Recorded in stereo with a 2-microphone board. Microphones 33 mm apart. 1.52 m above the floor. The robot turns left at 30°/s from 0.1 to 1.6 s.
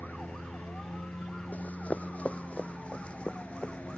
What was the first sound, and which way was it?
A lawn mower, 95° left.